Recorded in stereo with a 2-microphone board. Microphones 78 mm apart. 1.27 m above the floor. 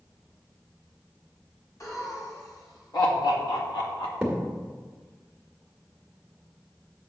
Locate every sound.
1.8 s laughter: 45° left (ahead or behind), 2.5 m; by 4.1 s 80° left, 1.9 m
4.2 s a thud: 15° right (ahead or behind), 1.8 m